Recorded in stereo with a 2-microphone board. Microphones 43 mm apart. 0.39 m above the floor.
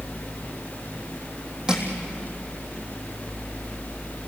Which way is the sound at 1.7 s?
15° right (ahead or behind).